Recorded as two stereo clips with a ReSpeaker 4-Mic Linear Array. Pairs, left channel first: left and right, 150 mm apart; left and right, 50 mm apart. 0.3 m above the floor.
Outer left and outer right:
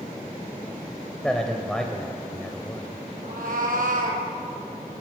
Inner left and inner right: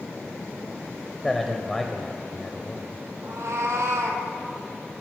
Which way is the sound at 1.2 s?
5° left (ahead or behind).